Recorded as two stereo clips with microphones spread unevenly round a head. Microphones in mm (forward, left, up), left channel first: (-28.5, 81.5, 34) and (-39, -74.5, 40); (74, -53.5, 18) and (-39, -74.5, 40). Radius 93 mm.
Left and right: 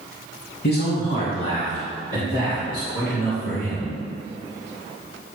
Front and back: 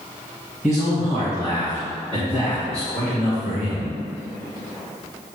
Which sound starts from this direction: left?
A man speaking, at 0.6 s.